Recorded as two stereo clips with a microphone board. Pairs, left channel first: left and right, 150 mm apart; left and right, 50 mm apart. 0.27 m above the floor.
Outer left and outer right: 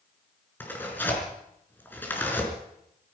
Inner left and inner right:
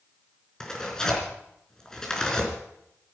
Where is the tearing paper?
10° left (ahead or behind), 4 m.